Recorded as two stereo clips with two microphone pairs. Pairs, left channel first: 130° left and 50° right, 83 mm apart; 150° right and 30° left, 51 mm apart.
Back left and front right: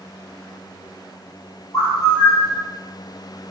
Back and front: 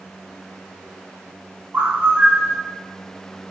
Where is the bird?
90° left, 4.5 m.